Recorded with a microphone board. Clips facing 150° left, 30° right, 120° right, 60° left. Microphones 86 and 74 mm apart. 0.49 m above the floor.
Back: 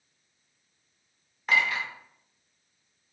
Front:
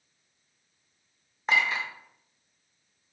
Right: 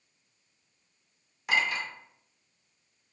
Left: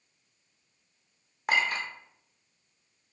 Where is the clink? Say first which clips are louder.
Even, left 1 dB; 30° left, 0.5 m.